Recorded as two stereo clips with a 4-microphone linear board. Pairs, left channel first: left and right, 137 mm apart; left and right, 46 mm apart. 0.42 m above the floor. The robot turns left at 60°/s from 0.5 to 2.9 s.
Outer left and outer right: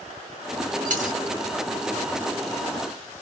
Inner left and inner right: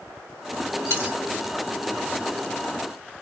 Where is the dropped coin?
80° right, 2 m; by 1.2 s 65° right (ahead or behind), 2 m.